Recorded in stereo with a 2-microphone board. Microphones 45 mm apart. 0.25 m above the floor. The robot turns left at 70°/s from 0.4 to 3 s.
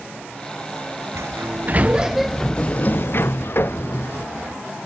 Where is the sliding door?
105° right; by 4.3 s 130° left.